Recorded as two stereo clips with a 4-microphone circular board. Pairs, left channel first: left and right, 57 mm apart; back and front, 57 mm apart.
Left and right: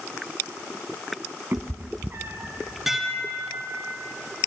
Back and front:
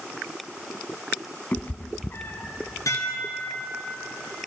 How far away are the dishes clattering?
About 3 m.